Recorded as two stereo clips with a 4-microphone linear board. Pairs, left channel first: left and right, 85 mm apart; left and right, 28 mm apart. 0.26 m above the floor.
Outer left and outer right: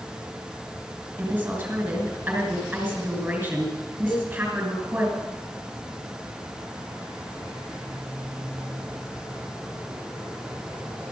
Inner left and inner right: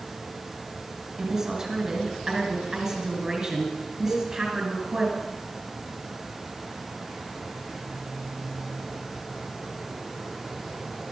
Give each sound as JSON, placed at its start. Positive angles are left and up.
{"t": 1.2, "sound": "a woman speaking", "side_deg": -15, "distance_m": 3.5}
{"t": 4.1, "sound": "a cowbell", "side_deg": 0, "distance_m": 8.0}